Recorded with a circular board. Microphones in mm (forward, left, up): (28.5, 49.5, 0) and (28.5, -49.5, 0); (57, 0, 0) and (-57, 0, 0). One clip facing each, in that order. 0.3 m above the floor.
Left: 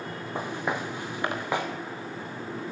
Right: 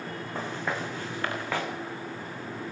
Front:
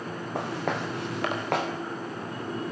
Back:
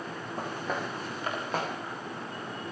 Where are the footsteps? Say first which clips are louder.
Left 2 dB, front 4 dB; 15° left, 7 m; by 1.7 s 20° left, 8 m.